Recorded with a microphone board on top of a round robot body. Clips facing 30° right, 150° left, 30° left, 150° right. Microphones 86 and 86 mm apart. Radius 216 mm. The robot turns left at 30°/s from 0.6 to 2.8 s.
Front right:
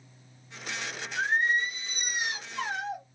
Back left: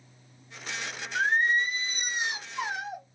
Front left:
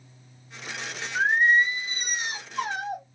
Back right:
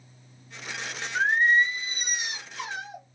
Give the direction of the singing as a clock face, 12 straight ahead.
8 o'clock.